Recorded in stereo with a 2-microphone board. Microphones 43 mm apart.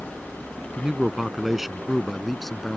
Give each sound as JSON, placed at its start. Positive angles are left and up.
{"t": 0.8, "sound": "a man speaking", "side_deg": -15}